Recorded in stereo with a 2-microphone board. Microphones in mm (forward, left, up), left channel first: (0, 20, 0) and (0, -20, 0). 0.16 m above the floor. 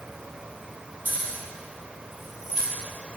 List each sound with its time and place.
1.1 s keys jangling: 40° right (ahead or behind), 2.5 m; by 2.7 s 20° right (ahead or behind), 2 m